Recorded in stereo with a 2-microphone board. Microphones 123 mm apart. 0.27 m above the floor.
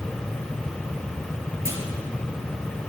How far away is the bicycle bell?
I don't hear a bicycle bell.